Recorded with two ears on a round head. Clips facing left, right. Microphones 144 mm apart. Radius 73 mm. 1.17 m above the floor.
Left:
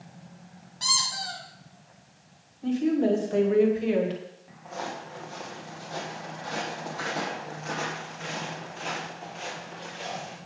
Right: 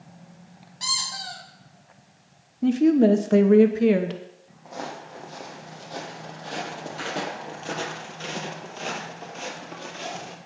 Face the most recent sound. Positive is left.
turn(degrees=-55)  # may be behind; listen again after turning